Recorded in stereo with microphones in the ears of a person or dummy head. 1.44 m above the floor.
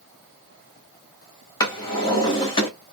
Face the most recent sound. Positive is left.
turn(degrees=20)  # may be behind; listen again after turning